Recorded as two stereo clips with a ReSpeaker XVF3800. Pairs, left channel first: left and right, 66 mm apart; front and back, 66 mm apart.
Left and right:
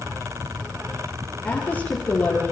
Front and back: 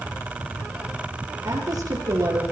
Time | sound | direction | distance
1.4 | a woman speaking | 160° left | 8.5 m